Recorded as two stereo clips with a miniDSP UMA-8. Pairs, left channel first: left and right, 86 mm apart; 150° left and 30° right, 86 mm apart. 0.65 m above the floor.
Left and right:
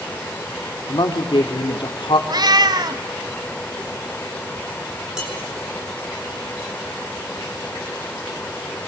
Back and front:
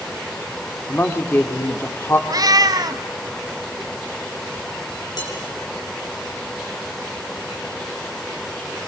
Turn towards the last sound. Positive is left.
turn(degrees=-175)